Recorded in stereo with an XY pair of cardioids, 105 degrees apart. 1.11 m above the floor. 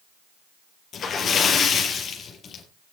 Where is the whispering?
No whispering in this recording.